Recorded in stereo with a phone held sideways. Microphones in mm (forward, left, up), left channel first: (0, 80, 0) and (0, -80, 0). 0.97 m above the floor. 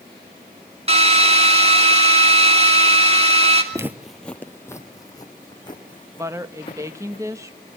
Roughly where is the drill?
Right.